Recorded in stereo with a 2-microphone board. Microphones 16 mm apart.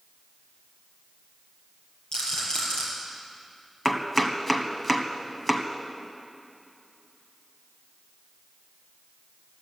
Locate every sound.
2.1 s a rattle: 70° left (ahead or behind), 5.5 m
3.9 s chopping: 15° left (ahead or behind), 1.1 m